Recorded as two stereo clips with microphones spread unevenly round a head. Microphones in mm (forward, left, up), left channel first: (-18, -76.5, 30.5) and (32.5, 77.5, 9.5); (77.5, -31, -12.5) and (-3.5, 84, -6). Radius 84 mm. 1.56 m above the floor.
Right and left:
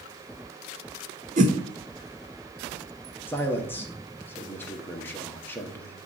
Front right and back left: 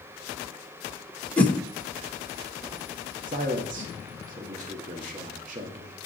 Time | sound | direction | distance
1.4 | a whoosh | 25° left | 1.3 m
3.3 | a man speaking | 170° left | 1.4 m